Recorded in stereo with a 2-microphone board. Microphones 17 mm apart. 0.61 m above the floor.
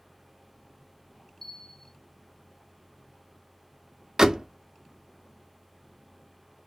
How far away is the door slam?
About 0.6 m.